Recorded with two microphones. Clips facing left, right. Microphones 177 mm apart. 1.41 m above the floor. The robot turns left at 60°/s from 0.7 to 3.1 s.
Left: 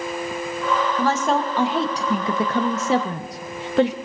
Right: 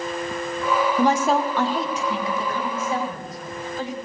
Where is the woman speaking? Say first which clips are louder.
Right 2 dB; 155° right, 1.3 m; by 3.9 s 75° left, 1.3 m.